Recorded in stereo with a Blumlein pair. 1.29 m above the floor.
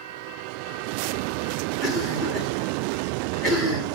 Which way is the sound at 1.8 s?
25° left.